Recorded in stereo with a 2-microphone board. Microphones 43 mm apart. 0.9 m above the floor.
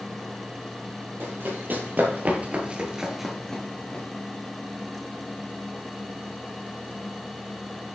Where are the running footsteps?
50° right (ahead or behind), 1.7 m; by 4.0 s 25° left (ahead or behind), 1.1 m.